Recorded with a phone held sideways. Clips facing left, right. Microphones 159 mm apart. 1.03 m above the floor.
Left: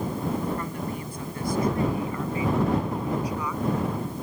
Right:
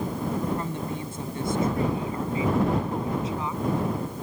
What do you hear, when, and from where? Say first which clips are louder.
0.6 s a woman speaking: right 1 dB; 25° right (ahead or behind)